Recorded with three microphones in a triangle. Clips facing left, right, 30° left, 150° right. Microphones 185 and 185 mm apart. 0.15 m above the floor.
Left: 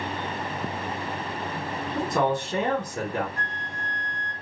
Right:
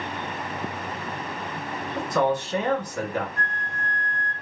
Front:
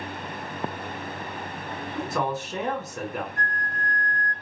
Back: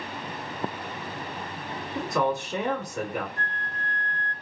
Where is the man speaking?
110° left, 1.2 m.